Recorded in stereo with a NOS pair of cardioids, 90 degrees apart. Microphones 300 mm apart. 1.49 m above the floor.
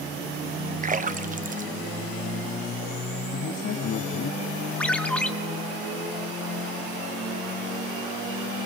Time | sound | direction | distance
0.8 | a splash | 25° right | 0.7 m
3.3 | a man speaking | 65° left | 3 m
4.8 | a ringtone | 5° left | 2 m